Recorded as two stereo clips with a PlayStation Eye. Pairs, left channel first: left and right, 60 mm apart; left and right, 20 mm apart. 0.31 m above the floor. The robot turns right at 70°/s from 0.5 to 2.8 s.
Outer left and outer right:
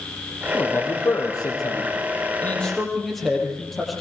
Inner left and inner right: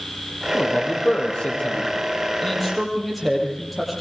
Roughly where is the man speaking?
Left.